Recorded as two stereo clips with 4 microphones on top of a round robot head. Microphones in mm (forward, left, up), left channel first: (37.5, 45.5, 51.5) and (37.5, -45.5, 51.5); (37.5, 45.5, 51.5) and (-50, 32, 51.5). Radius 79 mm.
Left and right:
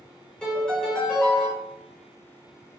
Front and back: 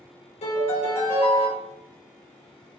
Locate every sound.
0.4 s a piano: 10° left, 3.5 m